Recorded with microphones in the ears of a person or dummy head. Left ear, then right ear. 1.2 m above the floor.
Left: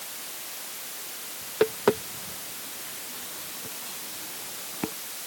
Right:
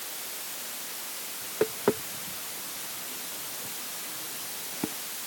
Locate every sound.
1.4 s tapping: 85° left